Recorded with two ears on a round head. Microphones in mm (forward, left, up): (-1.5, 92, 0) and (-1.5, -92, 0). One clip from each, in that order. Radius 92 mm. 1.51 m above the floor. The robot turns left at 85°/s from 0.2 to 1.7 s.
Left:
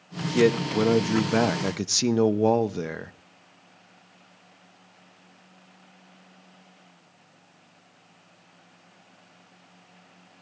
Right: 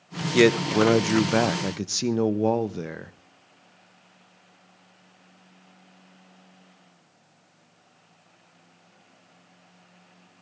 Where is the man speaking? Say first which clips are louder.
Right 3 dB; 75° right, 0.7 m; by 3.1 s 170° left, 0.7 m.